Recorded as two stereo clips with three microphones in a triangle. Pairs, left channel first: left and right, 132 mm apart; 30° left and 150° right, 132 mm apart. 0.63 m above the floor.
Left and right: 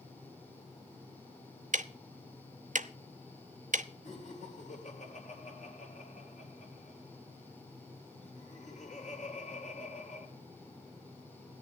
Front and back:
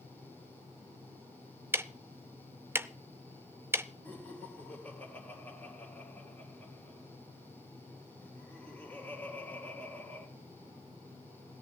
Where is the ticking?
75° right, 0.6 m.